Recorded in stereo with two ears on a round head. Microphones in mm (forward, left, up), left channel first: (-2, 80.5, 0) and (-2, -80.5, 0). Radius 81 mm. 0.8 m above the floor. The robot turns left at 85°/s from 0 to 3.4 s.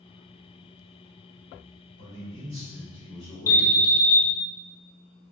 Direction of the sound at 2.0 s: 110° right.